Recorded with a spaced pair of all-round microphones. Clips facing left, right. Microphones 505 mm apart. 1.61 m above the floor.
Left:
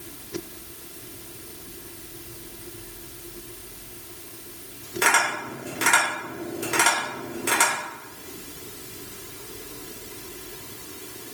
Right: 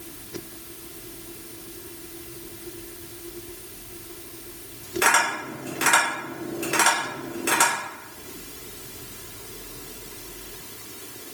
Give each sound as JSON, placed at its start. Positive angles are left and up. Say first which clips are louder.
{"t": 5.0, "sound": "tapping", "louder": "left 1 dB", "side_deg": -30, "distance_m": 3.5}